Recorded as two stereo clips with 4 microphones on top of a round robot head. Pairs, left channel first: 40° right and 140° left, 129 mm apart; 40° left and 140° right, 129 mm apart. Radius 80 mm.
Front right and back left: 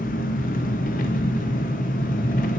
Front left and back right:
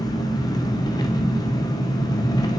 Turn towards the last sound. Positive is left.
turn(degrees=-20)